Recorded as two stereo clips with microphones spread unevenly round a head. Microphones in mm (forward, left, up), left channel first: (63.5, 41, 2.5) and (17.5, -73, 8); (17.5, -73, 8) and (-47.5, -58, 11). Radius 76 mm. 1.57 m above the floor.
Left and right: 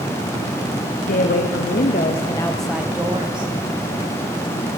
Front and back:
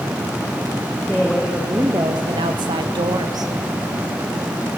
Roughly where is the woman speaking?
Left.